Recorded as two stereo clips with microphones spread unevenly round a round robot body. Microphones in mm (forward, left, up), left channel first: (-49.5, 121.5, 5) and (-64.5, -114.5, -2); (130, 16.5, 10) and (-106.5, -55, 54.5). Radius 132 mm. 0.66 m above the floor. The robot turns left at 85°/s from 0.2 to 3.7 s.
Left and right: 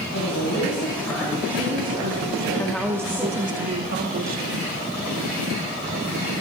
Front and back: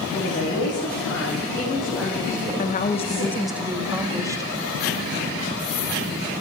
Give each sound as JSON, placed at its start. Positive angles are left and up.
{"t": 0.1, "sound": "a woman speaking", "azimuth_deg": 80, "distance_m": 3.5}
{"t": 2.6, "sound": "a woman speaking", "azimuth_deg": 15, "distance_m": 1.3}